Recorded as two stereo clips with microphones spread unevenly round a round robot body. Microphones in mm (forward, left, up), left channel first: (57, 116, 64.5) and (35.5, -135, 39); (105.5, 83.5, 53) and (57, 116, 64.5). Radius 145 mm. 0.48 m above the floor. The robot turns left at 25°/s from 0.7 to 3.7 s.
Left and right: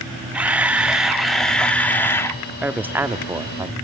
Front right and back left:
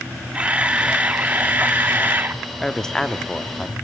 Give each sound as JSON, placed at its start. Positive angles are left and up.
{"t": 0.3, "sound": "a camera shutter", "azimuth_deg": -155, "distance_m": 0.9}
{"t": 2.6, "sound": "a woman speaking", "azimuth_deg": -35, "distance_m": 0.8}